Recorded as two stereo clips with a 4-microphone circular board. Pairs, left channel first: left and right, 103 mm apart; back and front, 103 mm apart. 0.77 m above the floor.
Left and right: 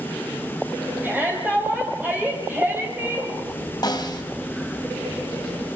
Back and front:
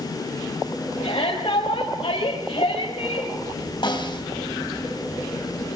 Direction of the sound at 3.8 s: 140° left.